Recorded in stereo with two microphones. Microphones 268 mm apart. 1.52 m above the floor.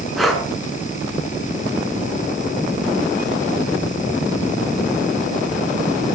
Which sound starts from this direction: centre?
Breathing, at 0.2 s.